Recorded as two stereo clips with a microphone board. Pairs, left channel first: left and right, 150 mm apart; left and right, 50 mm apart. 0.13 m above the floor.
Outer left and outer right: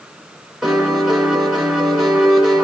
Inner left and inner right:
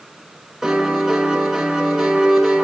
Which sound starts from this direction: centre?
A piano, at 0.6 s.